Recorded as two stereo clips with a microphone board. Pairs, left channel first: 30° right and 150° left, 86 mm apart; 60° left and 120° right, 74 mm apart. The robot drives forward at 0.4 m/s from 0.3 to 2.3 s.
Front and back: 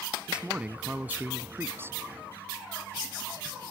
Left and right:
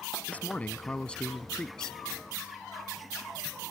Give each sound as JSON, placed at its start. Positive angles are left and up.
{"t": 0.3, "sound": "a man speaking", "azimuth_deg": 90}